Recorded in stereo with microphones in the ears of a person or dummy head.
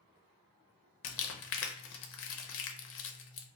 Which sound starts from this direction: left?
Crumpling, at 1.0 s.